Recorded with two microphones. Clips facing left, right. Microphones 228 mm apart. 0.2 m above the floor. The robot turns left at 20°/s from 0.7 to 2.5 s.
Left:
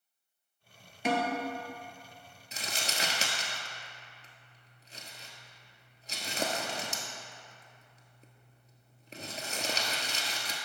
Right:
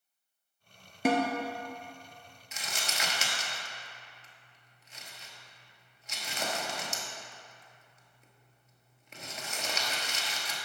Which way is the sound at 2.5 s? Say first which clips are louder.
Left 2 dB; 35° left (ahead or behind).